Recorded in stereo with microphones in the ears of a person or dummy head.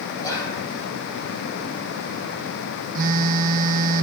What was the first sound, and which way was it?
Whispering, 25° left (ahead or behind).